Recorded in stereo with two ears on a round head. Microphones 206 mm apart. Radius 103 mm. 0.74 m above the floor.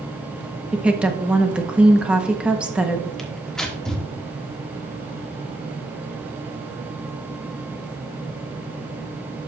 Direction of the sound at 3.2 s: Centre (ahead or behind).